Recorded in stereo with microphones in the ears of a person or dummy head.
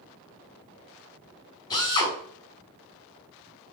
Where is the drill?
20° left (ahead or behind), 4 m.